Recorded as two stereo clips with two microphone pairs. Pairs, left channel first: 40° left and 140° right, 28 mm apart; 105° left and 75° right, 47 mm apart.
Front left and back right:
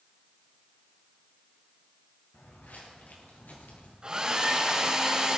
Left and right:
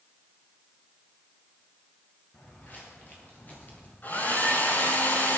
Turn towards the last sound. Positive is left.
turn(degrees=155)